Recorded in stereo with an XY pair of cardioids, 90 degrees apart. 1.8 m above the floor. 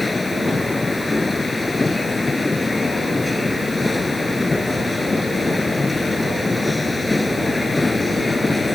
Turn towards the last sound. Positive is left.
turn(degrees=20)